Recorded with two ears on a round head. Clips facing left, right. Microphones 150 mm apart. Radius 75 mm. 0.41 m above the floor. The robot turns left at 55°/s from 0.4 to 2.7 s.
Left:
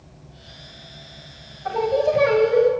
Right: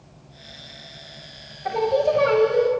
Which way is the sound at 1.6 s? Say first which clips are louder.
Even; 160° right.